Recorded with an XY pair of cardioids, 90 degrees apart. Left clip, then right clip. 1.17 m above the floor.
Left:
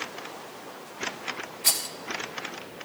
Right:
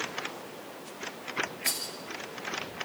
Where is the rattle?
65° left, 3.5 m.